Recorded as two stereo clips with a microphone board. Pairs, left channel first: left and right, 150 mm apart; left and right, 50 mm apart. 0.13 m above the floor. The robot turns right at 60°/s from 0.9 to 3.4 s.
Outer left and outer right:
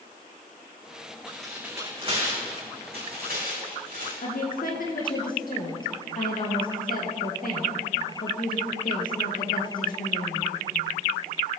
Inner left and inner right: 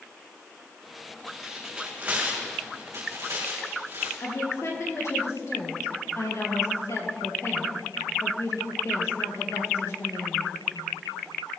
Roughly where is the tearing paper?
Centre.